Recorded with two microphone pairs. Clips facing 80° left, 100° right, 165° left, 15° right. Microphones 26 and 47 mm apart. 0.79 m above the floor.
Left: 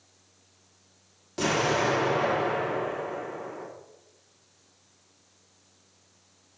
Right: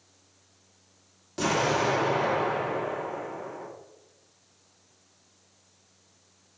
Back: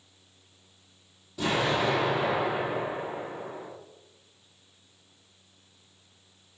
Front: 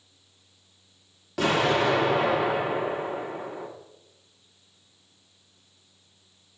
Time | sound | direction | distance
1.4 | an explosion | 10° right | 2 m